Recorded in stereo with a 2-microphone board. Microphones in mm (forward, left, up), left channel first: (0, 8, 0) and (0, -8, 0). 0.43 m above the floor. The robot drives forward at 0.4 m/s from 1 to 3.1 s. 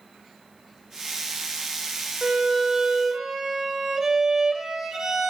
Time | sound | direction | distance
2.2 | a violin | 45° right (ahead or behind) | 0.9 m